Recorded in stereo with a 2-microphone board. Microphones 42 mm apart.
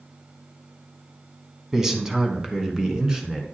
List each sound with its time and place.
1.7 s a man speaking: 10° right (ahead or behind), 1.0 m; by 3.4 s 15° right (ahead or behind), 1.6 m